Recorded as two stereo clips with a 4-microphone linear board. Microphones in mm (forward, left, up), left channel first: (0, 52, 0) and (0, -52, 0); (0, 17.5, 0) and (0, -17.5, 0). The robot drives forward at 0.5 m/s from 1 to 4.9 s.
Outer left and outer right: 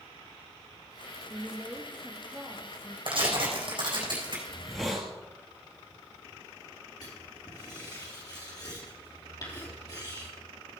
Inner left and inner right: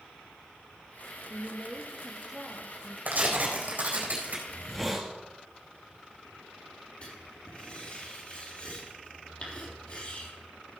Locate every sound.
1.3 s a woman speaking: 15° right (ahead or behind), 1.8 m; by 3.0 s 10° right (ahead or behind), 2.5 m
3.1 s tearing paper: 55° right (ahead or behind), 4 m; by 4.4 s 50° right (ahead or behind), 4.5 m
4.5 s a hiss: centre (ahead or behind), 2.5 m
7.0 s writing: 40° left (ahead or behind), 4 m